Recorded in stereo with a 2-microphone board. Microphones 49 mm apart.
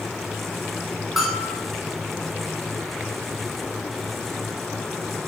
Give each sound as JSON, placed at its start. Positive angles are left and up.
{"t": 1.2, "sound": "a bell", "side_deg": 0, "distance_m": 2.5}